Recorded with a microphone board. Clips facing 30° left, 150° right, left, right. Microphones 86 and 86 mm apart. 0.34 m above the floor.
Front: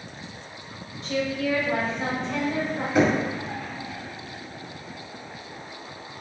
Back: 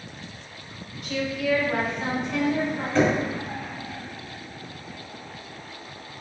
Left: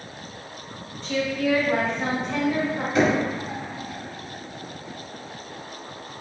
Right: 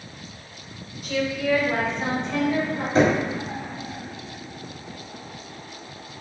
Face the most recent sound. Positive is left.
turn(degrees=-45)